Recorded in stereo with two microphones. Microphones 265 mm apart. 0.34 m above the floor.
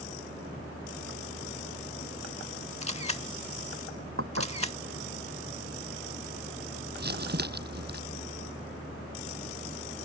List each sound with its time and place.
2.8 s a camera shutter: 25° left (ahead or behind)
4.2 s dishes clattering: 60° right (ahead or behind)
7.0 s crumpling: 40° right (ahead or behind)